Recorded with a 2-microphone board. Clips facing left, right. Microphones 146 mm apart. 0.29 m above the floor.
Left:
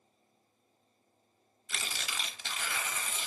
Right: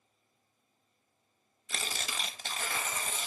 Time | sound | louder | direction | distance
1.7 | tearing paper | right 2 dB | 45° right (ahead or behind) | 0.6 m